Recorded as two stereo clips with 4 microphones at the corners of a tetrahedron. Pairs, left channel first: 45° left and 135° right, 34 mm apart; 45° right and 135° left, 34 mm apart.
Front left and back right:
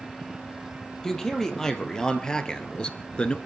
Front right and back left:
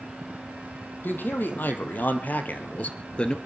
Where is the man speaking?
30° right, 3.5 m; by 3.4 s 5° left, 1.5 m.